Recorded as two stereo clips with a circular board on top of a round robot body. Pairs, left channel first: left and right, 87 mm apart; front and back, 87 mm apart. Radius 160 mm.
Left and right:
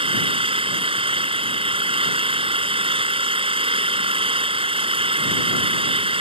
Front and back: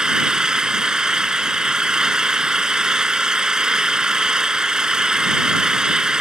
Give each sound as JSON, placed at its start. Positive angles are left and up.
{"t": 0.0, "sound": "an engine running", "azimuth_deg": -95}